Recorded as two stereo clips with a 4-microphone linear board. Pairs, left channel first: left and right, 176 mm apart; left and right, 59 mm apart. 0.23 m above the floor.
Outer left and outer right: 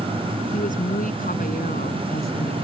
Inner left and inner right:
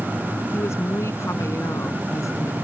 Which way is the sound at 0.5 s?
50° left (ahead or behind).